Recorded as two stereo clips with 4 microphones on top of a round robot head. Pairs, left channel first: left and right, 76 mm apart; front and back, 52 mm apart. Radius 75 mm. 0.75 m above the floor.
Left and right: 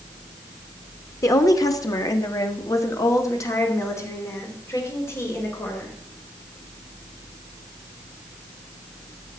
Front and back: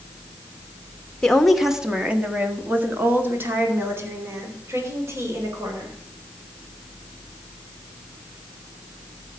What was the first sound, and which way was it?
A woman speaking, 75° left.